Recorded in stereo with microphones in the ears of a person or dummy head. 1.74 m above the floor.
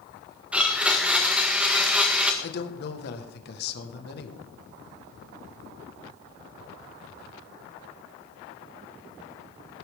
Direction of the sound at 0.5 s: 5° right (ahead or behind).